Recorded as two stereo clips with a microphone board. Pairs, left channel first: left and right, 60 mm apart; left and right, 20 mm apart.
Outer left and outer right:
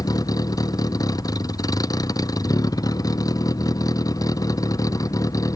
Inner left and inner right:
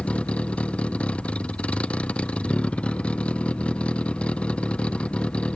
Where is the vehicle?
85° left; by 5.6 s 70° left (ahead or behind).